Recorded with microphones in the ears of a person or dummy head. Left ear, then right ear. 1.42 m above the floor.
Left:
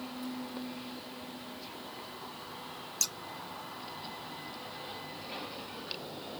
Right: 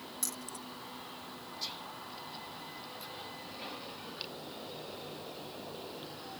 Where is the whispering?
40° right (ahead or behind).